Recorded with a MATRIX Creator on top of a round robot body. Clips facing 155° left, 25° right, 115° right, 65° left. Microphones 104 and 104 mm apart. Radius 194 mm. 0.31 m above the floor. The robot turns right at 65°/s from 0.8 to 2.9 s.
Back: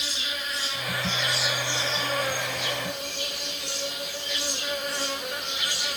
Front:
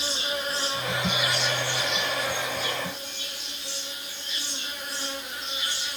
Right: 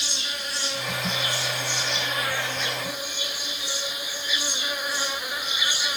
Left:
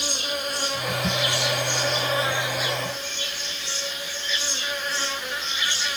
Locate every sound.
0.0 s an insect: 35° left, 2.5 m; by 6.0 s 170° left, 2.5 m